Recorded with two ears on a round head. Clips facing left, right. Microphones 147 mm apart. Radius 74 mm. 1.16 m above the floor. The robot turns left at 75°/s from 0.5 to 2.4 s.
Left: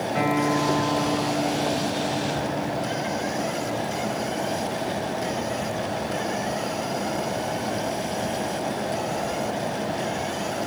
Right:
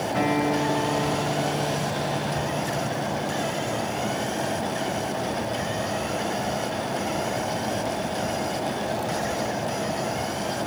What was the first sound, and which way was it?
A guitar, 25° left.